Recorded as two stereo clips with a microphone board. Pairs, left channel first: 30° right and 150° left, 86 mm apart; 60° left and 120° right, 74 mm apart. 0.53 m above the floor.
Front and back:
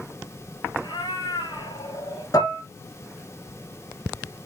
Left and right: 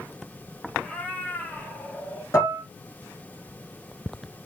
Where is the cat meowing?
5° right, 4.5 m; by 2.2 s straight ahead, 5 m.